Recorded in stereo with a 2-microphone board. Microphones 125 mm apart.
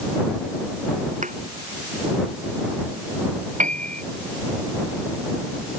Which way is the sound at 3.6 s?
80° right.